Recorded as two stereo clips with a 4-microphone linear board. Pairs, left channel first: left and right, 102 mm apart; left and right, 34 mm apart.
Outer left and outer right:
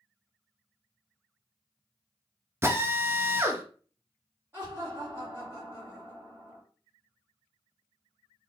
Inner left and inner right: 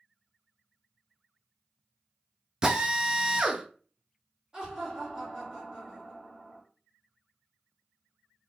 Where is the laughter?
25° right (ahead or behind), 1.6 m.